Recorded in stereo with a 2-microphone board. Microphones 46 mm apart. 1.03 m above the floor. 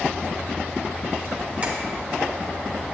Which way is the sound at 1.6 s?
30° right (ahead or behind).